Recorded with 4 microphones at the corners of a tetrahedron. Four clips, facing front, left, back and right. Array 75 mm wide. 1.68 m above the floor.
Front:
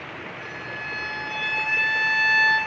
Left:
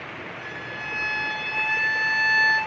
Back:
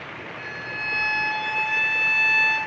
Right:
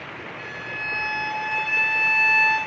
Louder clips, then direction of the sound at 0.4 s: Right 4 dB, back 4 dB; 85° right.